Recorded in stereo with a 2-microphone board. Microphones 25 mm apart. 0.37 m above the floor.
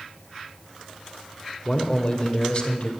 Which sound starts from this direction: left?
A man speaking, at 1.6 s.